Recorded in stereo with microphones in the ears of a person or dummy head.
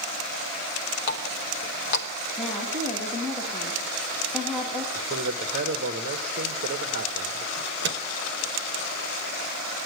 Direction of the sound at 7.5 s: 55° right (ahead or behind).